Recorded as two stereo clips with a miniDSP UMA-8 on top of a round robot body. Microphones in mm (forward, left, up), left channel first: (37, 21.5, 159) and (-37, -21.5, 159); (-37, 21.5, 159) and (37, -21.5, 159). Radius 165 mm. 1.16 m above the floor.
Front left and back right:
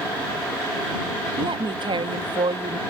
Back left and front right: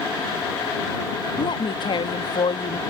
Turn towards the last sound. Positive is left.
turn(degrees=180)